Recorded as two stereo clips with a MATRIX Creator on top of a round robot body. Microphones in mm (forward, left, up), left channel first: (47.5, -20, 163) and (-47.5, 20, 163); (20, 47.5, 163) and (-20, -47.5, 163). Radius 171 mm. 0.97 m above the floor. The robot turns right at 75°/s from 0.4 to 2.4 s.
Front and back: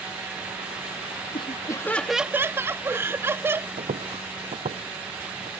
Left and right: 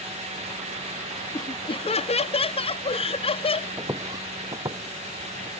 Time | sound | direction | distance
1.3 | laughter | 10° left | ?
3.8 | footsteps | straight behind | ?